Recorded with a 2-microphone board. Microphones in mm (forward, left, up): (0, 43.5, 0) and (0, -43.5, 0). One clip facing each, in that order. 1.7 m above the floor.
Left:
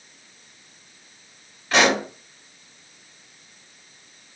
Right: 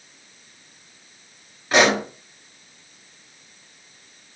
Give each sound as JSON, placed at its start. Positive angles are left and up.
{"t": 1.7, "sound": "a pop", "side_deg": -15, "distance_m": 1.4}